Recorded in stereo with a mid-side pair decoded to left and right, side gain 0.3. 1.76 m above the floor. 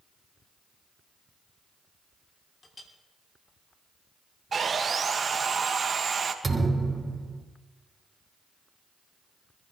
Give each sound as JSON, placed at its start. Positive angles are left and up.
{"t": 2.6, "sound": "a clink", "azimuth_deg": 55, "distance_m": 3.0}
{"t": 4.5, "sound": "sawing", "azimuth_deg": -55, "distance_m": 2.0}
{"t": 6.4, "sound": "a thud", "azimuth_deg": -25, "distance_m": 3.5}